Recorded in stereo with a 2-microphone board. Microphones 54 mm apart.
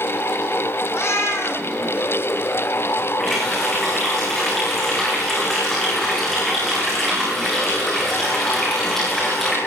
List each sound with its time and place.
0.9 s a cat meowing: 50° left (ahead or behind), 3 m
3.2 s a running tap: 5° left (ahead or behind), 7.5 m